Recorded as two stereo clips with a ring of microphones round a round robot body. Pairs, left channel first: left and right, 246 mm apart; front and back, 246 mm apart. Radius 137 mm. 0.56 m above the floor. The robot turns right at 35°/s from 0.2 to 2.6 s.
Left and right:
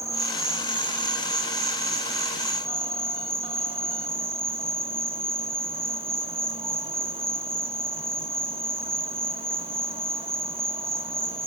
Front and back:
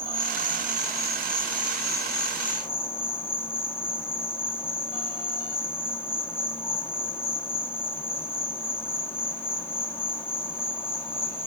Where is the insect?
150° right, 0.8 m; by 11.5 s 65° right, 0.8 m.